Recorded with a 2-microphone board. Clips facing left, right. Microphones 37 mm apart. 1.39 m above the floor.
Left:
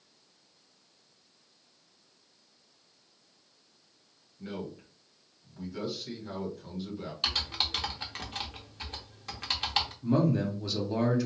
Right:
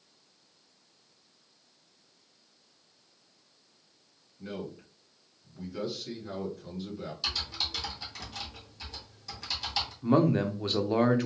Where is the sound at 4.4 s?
5° left (ahead or behind), 1.5 m.